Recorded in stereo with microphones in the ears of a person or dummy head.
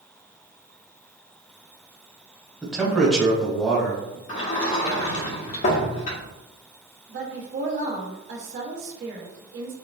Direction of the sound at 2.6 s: Centre (ahead or behind).